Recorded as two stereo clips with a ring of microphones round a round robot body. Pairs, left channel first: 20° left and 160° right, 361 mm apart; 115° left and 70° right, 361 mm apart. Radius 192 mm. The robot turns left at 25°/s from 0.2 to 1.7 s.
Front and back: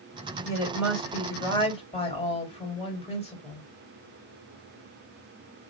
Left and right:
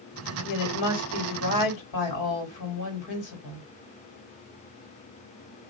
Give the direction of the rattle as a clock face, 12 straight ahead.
I don't hear a rattle.